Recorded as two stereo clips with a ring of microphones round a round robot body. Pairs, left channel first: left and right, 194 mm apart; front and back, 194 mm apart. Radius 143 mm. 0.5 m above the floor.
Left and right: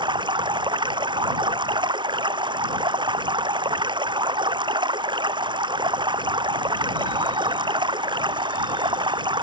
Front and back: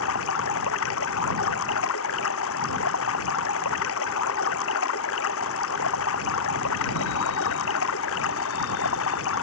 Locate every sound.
0.0 s running water: 25° right